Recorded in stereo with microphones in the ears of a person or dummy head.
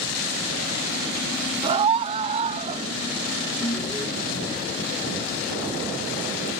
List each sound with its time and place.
1.6 s a scream: 30° right (ahead or behind); by 2.9 s 40° right (ahead or behind)
3.6 s an alarm: 25° left (ahead or behind)